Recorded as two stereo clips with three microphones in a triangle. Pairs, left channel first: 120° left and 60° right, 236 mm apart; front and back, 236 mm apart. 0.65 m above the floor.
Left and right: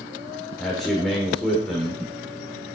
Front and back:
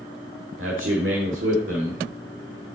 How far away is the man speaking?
About 1.4 m.